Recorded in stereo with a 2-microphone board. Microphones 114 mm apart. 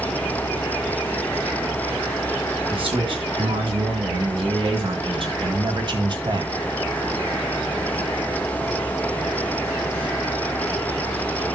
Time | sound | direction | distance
2.7 | a man speaking | 50° right (ahead or behind) | 3 m